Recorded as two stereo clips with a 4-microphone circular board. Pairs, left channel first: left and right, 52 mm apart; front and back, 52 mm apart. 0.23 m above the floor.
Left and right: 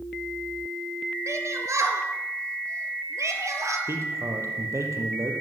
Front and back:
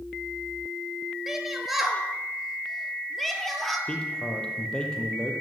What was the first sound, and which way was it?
A shout, 95° right.